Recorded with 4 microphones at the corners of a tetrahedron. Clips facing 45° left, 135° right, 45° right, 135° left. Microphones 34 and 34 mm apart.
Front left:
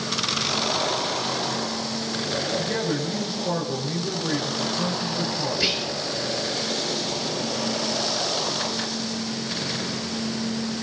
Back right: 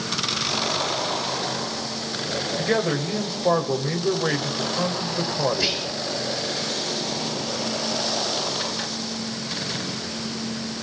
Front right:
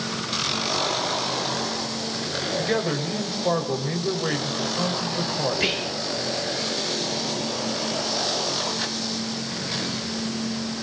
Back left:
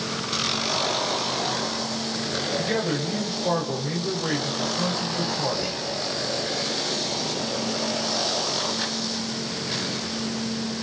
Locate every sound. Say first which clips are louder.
2.6 s a man speaking: back right 3 dB, front right 3 dB; 120° right, 5 m
5.5 s whispering: even, front right 3 dB; 40° right, 0.7 m